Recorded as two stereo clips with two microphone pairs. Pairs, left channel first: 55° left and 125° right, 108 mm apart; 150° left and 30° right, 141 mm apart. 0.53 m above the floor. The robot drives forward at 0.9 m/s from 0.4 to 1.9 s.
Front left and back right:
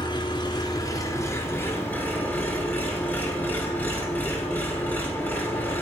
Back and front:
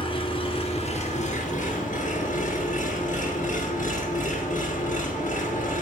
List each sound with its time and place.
0.0 s an engine running: 100° left, 2.0 m; by 5.8 s 130° left, 2.5 m